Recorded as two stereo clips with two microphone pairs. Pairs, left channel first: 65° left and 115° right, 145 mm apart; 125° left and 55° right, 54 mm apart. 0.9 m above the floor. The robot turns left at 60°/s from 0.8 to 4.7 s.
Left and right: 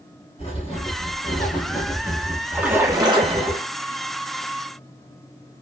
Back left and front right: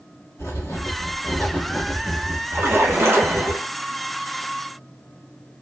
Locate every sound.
0.4 s writing: 105° left, 1.5 m; by 3.5 s 60° right, 1.5 m
2.5 s a splash: 30° right, 0.9 m; by 3.7 s 100° right, 0.9 m